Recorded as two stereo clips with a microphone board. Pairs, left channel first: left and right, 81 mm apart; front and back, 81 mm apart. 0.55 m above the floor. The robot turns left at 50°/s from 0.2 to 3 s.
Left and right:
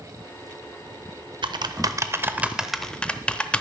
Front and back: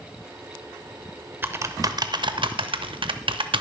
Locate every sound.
1.4 s typing on a keyboard: 115° right, 0.6 m; by 3.6 s 165° left, 0.6 m